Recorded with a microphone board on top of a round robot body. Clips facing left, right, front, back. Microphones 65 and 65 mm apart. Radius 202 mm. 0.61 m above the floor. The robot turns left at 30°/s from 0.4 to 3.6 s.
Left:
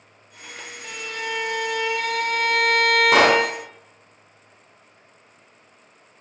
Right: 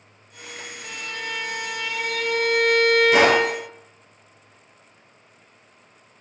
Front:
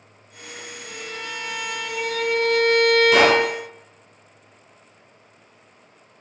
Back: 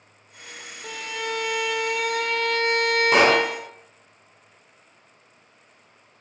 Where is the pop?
125° left, 2.5 m; by 3.4 s 115° left, 2.5 m.